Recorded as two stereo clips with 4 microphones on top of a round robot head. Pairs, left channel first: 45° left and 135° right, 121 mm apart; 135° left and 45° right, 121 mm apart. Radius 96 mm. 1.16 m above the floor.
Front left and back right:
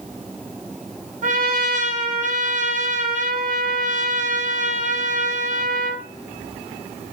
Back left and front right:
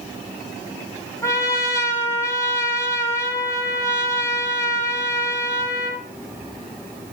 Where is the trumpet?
155° right, 3.5 m.